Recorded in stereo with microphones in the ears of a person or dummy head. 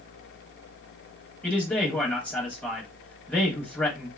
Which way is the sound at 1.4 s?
10° left (ahead or behind).